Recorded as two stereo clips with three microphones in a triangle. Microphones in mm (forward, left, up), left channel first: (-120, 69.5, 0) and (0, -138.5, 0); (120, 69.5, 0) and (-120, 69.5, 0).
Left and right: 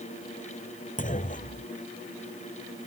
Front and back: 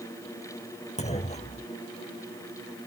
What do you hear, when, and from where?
1.0 s a clunk: 65° left